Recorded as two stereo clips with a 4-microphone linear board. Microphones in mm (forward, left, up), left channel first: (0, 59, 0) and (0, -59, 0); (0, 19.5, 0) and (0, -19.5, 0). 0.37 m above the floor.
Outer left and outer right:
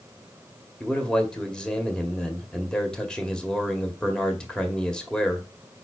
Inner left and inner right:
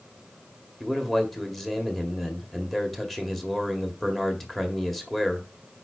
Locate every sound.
0.8 s a man speaking: 10° left (ahead or behind), 1.7 m